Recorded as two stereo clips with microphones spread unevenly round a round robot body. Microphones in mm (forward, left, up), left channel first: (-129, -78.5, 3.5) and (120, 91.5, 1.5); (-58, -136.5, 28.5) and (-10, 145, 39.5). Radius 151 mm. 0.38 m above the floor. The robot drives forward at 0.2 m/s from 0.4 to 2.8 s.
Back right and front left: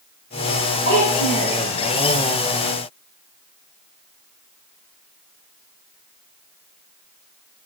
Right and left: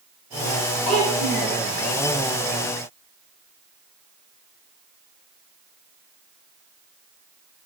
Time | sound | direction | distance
0.8 | a child speaking | 175° left | 7 m